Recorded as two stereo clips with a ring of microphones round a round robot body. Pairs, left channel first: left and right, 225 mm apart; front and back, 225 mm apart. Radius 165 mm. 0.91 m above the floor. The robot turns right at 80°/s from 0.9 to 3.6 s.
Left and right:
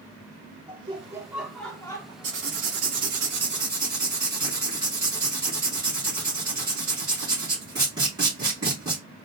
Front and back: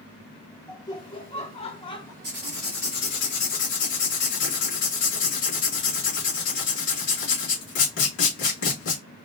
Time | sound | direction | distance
0.7 | laughter | 45° right | 0.9 m
2.2 | writing | 120° right | 3 m